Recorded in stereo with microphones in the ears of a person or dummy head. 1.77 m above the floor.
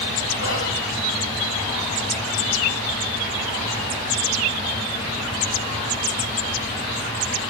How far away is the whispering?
About 9.5 m.